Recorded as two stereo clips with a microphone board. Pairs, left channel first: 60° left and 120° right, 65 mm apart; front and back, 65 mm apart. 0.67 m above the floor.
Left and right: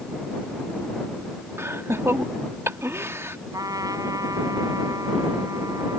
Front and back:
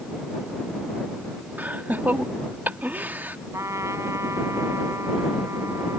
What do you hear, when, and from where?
1.6 s laughter: 135° right
3.5 s a trumpet: 140° right